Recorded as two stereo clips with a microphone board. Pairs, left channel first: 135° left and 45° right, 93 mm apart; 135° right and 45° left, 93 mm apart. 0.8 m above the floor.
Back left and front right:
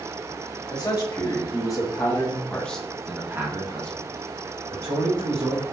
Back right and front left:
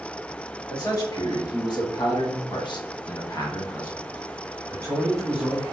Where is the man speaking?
175° left, 2 m; by 5.6 s 40° right, 2.0 m.